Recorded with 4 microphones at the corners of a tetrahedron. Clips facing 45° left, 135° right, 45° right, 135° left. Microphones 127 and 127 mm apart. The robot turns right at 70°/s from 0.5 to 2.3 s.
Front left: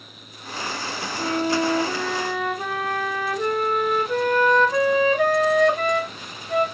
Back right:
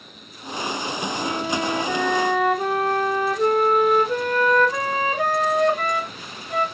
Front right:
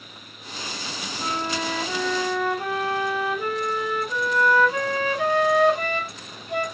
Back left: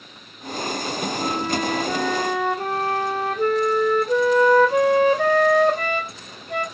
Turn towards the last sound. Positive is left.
turn(degrees=140)